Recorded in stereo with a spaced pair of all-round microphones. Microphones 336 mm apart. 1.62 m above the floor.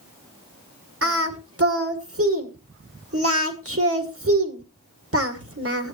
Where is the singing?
45° right (ahead or behind), 1.7 m.